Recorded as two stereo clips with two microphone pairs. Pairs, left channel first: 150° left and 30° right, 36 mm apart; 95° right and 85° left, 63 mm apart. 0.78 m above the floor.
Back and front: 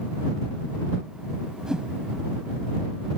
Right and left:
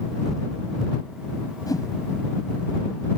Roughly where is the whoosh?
Right.